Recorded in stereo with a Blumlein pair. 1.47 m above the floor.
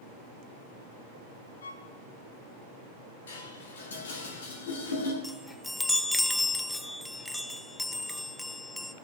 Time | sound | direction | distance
1.6 | a violin | 65° left | 0.9 m
3.3 | dishes clattering | 65° left | 2.5 m
5.2 | a chime | 5° left | 0.5 m